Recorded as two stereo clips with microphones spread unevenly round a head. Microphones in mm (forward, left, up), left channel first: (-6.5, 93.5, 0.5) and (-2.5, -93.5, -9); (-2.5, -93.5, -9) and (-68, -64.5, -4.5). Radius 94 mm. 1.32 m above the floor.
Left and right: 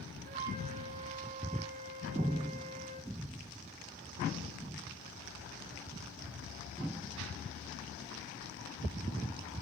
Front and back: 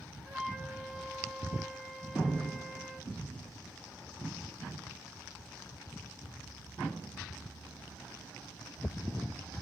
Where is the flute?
140° right, 3 m.